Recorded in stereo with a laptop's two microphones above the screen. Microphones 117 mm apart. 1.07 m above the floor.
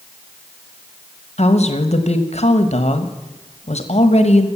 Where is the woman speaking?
65° left (ahead or behind), 1.3 m.